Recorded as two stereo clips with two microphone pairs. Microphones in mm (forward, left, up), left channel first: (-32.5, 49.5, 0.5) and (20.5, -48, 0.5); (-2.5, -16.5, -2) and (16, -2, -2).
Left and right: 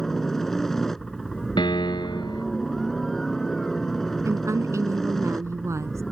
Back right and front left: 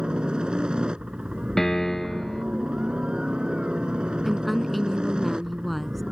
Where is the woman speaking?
55° right.